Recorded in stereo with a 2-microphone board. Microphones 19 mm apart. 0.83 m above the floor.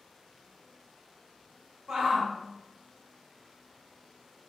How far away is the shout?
About 1.4 m.